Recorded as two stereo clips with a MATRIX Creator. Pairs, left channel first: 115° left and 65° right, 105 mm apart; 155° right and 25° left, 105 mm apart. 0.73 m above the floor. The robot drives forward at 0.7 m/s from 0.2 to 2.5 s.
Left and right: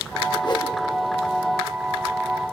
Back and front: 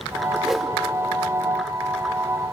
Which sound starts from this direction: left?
A whoosh, at 0.4 s.